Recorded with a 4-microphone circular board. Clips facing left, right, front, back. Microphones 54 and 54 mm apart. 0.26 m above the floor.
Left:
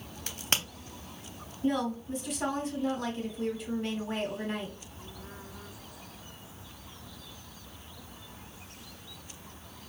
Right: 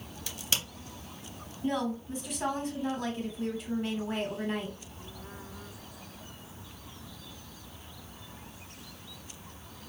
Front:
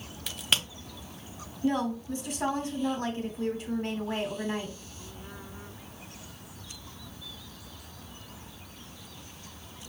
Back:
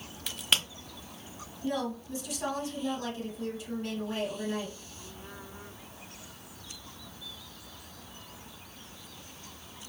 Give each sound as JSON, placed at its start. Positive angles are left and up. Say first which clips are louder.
{"t": 0.3, "sound": "a crack", "louder": "left 3 dB, even", "azimuth_deg": 85, "distance_m": 0.8}
{"t": 1.6, "sound": "a woman speaking", "louder": "left 2 dB, front 5 dB", "azimuth_deg": 0, "distance_m": 1.6}